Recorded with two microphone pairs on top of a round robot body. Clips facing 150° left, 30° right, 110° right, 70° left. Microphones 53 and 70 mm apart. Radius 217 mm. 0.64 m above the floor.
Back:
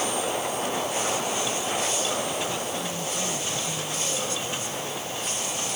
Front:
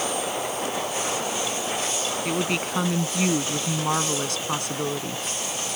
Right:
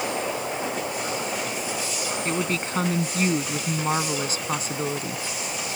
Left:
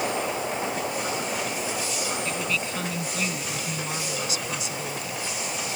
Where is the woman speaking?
60° right.